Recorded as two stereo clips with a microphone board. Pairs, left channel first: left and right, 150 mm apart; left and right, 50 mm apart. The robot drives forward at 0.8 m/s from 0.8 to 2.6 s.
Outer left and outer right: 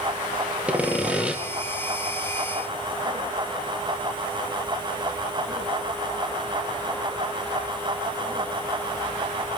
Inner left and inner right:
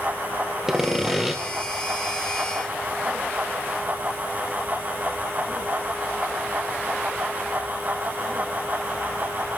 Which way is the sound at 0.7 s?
10° right (ahead or behind).